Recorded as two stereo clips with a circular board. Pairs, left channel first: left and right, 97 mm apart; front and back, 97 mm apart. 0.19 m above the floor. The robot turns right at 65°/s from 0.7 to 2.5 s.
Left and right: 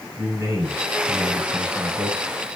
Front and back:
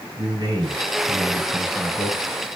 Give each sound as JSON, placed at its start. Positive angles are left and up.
{"t": 0.2, "sound": "a man speaking", "azimuth_deg": -145, "distance_m": 2.0}